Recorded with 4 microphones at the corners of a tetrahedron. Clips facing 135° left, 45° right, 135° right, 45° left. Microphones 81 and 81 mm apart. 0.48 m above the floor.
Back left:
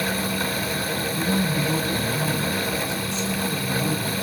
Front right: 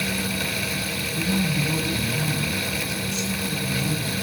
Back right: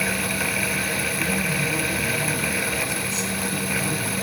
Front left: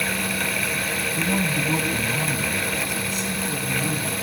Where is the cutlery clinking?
No cutlery clinking in this recording.